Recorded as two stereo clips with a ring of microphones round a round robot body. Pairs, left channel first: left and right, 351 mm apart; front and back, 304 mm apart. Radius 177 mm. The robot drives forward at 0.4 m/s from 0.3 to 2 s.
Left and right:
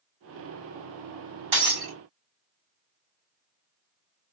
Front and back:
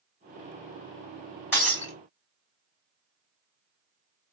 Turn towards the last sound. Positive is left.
turn(degrees=-95)